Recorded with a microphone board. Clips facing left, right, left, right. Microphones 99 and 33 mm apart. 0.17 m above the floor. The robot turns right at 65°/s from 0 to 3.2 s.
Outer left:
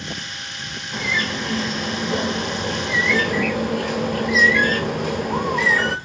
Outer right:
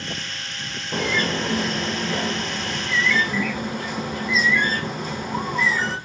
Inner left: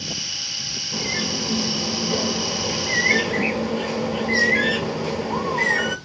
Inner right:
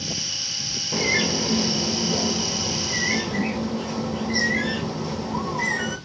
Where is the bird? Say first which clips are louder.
Outer right 2 dB, inner right 4 dB; 60° right, 0.6 m; by 6.0 s 90° left, 0.6 m.